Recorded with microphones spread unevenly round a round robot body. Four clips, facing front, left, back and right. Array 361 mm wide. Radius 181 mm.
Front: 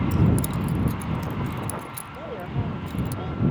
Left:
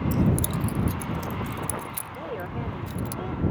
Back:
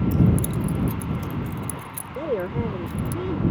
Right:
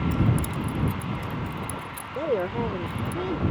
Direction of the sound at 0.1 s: 65° left.